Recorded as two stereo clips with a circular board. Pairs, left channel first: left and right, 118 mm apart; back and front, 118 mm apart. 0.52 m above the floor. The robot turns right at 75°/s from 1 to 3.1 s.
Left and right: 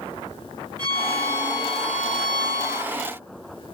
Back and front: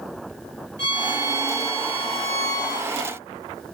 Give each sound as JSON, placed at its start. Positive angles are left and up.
{"t": 0.8, "sound": "a violin", "azimuth_deg": -60, "distance_m": 1.4}